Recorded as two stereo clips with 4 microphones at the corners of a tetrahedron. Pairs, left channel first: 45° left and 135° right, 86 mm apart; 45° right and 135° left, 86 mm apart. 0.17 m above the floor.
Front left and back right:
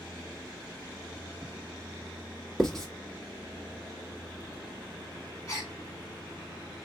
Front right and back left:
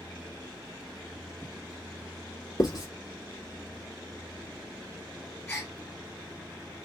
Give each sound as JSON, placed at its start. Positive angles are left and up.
{"t": 2.6, "sound": "writing", "azimuth_deg": -40, "distance_m": 1.2}
{"t": 5.5, "sound": "a gasp", "azimuth_deg": 10, "distance_m": 1.8}